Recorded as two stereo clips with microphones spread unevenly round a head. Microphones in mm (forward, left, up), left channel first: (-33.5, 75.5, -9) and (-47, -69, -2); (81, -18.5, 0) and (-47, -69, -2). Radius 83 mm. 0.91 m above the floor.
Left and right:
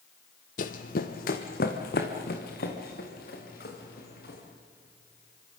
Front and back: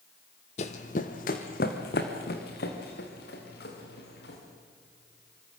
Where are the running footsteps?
60° left, 1.5 m; by 4.4 s 45° left, 6 m.